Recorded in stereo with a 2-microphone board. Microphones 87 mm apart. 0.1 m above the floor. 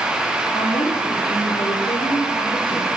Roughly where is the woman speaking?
Left.